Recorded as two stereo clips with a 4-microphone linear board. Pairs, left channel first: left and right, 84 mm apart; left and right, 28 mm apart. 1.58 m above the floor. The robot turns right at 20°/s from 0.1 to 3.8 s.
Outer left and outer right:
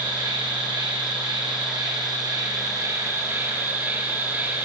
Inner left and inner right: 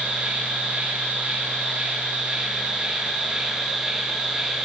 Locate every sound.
0.0 s an insect: 100° right, 6 m; by 4.7 s 30° right, 6 m